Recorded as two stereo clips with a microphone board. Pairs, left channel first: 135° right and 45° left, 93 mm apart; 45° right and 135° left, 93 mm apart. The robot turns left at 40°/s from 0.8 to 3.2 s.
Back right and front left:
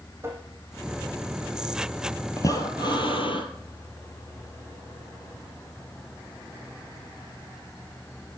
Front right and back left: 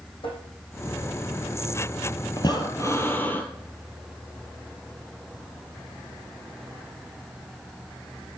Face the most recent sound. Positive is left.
turn(degrees=-115)